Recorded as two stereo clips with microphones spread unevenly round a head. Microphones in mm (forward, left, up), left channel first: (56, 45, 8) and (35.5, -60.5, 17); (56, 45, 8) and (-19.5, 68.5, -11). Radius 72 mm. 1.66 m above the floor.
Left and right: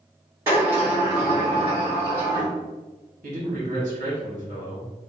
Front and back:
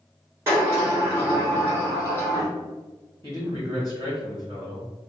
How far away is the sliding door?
About 1.4 m.